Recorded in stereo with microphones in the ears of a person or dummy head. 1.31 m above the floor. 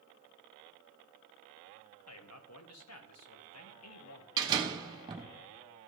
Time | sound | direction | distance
2.1 | a man speaking | 75° left (ahead or behind) | 1.3 m
4.4 | a door slam | 20° right (ahead or behind) | 1.1 m